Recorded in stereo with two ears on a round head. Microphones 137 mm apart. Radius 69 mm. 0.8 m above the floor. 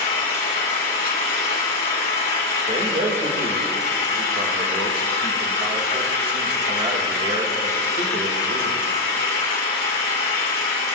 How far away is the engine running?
About 2.5 m.